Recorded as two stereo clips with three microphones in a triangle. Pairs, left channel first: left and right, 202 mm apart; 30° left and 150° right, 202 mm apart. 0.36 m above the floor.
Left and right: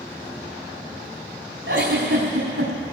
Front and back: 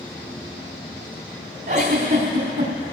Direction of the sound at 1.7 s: 115° right.